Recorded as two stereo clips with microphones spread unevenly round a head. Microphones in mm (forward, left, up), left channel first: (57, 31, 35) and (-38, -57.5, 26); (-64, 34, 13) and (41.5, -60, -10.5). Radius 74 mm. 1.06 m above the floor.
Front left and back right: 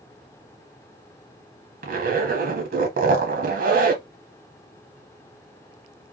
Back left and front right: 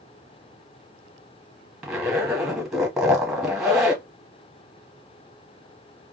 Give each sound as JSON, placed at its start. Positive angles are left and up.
{"t": 1.8, "sound": "a zipper", "azimuth_deg": -130, "distance_m": 1.2}